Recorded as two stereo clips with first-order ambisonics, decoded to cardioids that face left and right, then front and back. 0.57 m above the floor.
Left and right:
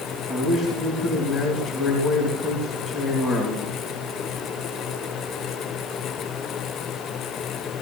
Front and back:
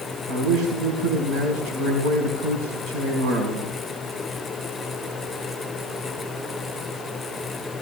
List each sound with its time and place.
0.3 s a man speaking: 175° right, 4.5 m